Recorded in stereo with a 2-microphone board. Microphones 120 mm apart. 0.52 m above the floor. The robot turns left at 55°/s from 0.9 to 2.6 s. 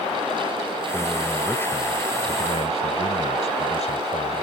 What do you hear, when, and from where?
0.9 s a man speaking: 160° right; by 4.4 s 110° left